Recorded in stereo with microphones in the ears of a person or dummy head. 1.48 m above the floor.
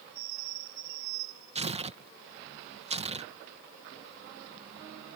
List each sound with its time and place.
1.6 s tearing paper: 30° right (ahead or behind)